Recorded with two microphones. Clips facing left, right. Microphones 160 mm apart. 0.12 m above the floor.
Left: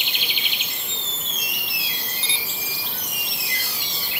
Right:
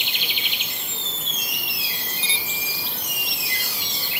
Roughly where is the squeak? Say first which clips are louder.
Even; centre.